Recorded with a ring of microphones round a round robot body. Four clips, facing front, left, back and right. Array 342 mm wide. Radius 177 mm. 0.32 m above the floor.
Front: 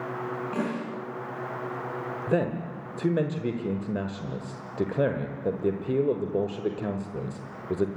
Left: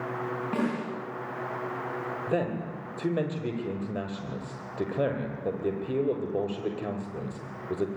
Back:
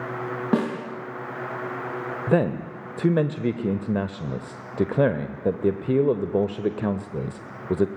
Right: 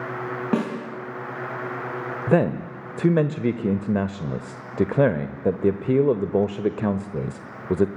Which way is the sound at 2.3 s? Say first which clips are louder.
Right 10 dB, back 5 dB; 115° right.